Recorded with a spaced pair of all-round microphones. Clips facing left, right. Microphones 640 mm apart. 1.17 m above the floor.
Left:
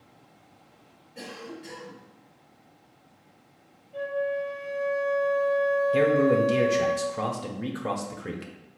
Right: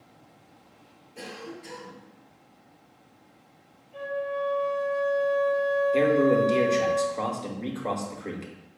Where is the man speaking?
45° left (ahead or behind), 0.7 m.